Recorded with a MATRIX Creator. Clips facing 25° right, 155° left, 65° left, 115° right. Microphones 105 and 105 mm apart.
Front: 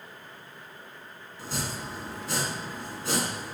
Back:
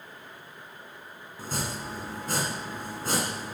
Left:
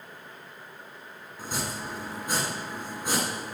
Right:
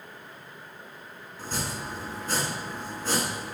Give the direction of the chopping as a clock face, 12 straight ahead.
7 o'clock.